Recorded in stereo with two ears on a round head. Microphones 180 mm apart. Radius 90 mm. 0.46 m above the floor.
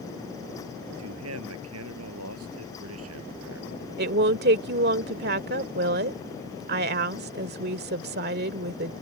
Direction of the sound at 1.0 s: 85° right.